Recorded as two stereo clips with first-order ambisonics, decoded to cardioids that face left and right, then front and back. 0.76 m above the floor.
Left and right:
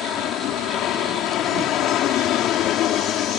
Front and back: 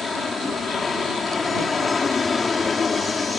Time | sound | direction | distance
0.0 | an aircraft | 65° left | ?